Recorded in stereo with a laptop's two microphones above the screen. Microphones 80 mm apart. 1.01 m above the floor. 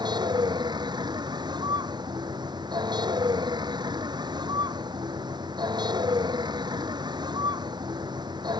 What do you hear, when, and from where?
0.0 s a vehicle: 60° right (ahead or behind)